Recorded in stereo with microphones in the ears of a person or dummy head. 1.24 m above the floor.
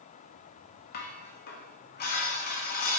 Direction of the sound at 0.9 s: 50° left (ahead or behind).